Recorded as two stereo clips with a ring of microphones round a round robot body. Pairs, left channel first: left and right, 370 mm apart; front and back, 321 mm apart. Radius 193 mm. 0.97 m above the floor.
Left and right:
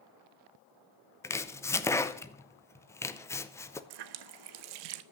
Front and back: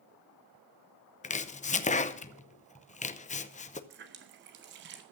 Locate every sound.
1.2 s chopping: 20° left, 0.7 m
3.9 s a running tap: 120° right, 0.7 m